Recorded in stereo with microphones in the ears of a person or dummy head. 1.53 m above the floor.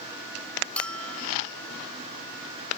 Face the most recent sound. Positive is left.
turn(degrees=5)  # may be behind; listen again after turning